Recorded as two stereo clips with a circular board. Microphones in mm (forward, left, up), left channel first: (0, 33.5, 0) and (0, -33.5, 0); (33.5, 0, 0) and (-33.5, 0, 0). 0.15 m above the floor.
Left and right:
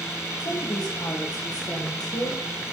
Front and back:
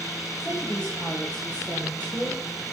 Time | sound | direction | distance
0.4 | a woman speaking | 75° left | 9 m